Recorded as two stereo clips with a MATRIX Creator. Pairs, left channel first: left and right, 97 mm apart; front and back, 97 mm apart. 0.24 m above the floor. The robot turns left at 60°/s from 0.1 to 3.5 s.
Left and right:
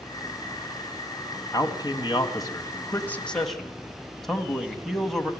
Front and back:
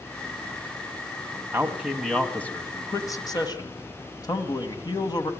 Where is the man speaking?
120° left, 2 m; by 5.3 s straight ahead, 2 m.